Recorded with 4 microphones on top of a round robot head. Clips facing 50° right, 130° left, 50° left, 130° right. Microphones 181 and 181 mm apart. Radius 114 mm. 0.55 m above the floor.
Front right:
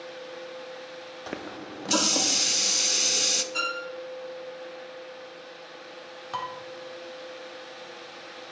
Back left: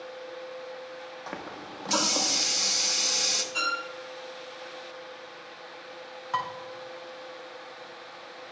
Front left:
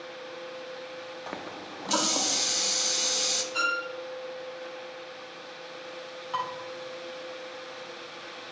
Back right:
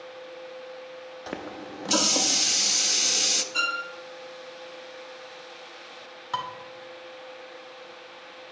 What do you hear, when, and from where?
1.3 s a running tap: 80° right, 0.5 m
3.5 s a violin: 80° right, 1.6 m
6.3 s dishes clattering: 100° right, 1.4 m